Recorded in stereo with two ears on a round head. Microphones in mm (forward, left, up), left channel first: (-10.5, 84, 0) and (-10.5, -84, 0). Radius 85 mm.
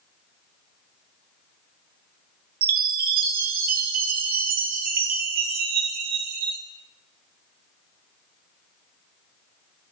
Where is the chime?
50° right (ahead or behind), 1.3 m.